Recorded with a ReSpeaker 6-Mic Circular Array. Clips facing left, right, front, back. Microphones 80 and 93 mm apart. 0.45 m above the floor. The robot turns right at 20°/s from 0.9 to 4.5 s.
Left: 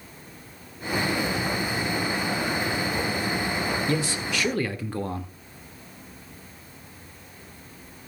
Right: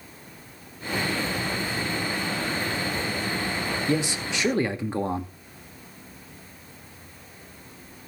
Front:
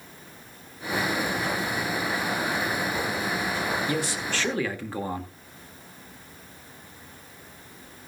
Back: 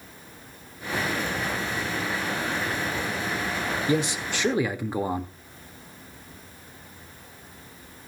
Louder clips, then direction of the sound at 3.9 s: Right 1 dB, back 3 dB; 140° right.